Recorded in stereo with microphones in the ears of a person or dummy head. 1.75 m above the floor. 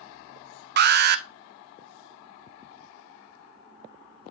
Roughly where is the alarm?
Right.